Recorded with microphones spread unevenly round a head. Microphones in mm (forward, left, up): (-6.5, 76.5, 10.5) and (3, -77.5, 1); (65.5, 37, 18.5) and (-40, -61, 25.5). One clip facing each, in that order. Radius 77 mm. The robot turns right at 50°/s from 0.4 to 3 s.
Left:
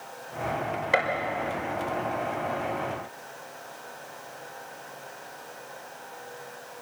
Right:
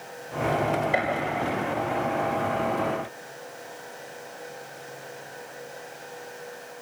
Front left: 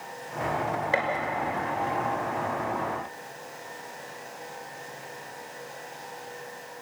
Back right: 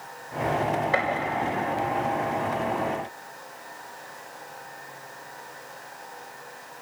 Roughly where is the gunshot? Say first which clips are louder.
Even, front left 1 dB; left.